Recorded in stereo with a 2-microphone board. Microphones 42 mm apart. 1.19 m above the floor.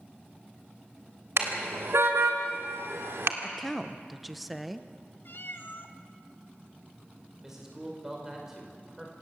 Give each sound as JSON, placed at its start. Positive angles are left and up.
{"t": 1.4, "sound": "a car horn", "side_deg": -75, "distance_m": 3.0}
{"t": 3.4, "sound": "a woman speaking", "side_deg": 0, "distance_m": 0.9}
{"t": 5.2, "sound": "a cat meowing", "side_deg": 60, "distance_m": 1.4}
{"t": 7.4, "sound": "a man speaking", "side_deg": -15, "distance_m": 5.0}